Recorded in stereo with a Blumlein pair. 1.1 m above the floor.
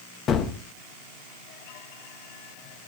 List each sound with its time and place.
0.3 s a gunshot: 25° left, 1.4 m